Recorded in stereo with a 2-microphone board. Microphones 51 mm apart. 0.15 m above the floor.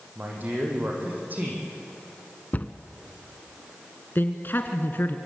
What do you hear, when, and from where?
0.1 s a man speaking: 40° right (ahead or behind), 6.5 m
2.5 s a cupboard door: 35° left (ahead or behind), 0.8 m
4.2 s a man speaking: 45° left (ahead or behind), 1.6 m